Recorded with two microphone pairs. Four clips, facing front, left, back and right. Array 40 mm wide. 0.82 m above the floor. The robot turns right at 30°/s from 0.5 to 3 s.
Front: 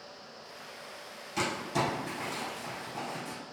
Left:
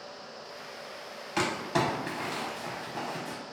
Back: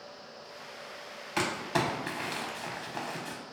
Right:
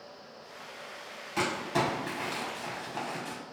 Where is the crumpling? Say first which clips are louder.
Left 1 dB, back 1 dB; 165° left, 0.6 m; by 3.4 s 145° right, 0.6 m.